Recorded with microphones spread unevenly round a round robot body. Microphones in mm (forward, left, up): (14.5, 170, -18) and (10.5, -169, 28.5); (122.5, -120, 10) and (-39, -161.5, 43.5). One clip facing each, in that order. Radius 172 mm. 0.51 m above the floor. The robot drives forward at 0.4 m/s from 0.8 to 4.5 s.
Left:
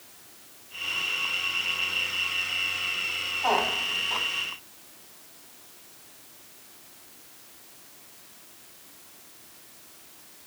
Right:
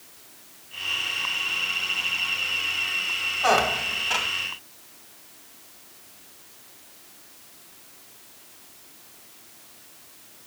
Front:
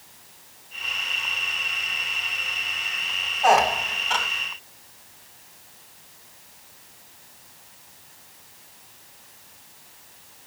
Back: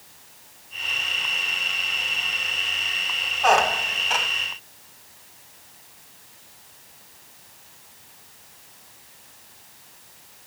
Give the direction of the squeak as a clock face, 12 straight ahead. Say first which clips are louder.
Right 4 dB, front 1 dB; 2 o'clock.